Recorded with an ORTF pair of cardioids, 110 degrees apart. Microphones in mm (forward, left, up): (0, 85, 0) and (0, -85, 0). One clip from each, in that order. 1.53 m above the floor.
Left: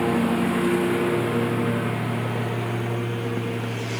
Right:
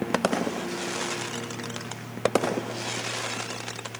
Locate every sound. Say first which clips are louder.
0.0 s a lawn mower: left 3 dB; 70° left; by 4.0 s 75° left